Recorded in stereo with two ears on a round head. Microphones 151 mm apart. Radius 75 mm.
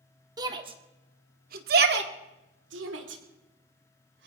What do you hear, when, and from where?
0.4 s a shout: 25° right (ahead or behind), 2 m; by 4.3 s 75° right (ahead or behind), 4 m